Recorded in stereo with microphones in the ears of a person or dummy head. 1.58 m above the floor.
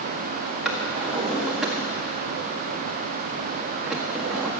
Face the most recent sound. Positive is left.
turn(degrees=0)  # may be behind; listen again after turning